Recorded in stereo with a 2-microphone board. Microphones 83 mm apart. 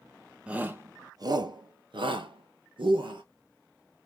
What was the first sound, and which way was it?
A shout, 15° right (ahead or behind).